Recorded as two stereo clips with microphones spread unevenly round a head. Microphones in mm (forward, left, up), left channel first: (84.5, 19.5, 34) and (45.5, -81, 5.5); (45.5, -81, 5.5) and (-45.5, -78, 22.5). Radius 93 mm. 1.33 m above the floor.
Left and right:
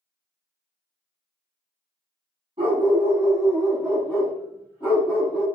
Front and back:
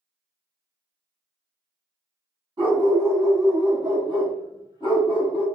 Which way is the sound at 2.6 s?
175° right.